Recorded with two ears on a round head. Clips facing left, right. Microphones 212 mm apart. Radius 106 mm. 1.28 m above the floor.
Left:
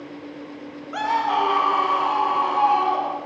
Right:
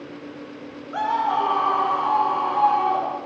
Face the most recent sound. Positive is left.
turn(degrees=40)  # may be behind; listen again after turning